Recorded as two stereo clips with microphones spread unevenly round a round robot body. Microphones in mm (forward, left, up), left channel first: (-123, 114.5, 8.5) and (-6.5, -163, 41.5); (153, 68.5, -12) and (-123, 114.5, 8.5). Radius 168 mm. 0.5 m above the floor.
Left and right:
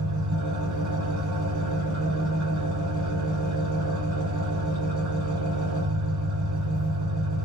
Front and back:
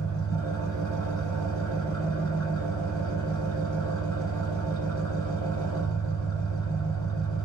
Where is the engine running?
90° right, 6 m.